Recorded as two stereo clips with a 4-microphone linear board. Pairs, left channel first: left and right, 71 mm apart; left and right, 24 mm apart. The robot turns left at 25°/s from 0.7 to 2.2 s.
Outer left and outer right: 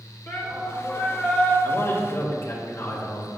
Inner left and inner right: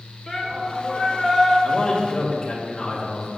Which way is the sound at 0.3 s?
45° left (ahead or behind).